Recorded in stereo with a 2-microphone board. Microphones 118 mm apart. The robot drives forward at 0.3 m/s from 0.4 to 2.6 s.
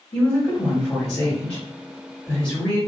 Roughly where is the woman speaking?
Centre.